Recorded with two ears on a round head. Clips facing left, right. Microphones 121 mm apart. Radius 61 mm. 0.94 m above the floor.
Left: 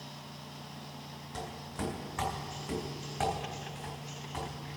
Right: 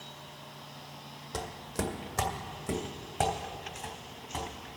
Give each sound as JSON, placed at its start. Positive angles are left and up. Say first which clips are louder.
{"t": 1.3, "sound": "footsteps", "louder": "right 4 dB", "side_deg": -55, "distance_m": 1.7}